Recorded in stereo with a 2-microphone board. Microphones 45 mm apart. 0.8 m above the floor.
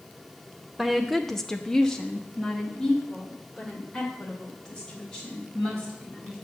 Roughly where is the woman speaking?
Centre.